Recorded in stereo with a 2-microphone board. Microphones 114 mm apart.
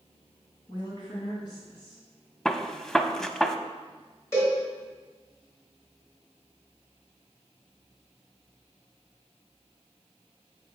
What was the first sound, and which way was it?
A woman speaking, 45° left (ahead or behind).